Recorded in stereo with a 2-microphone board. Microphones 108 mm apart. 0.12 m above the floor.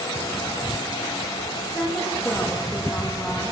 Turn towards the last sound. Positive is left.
turn(degrees=0)  # may be behind; listen again after turning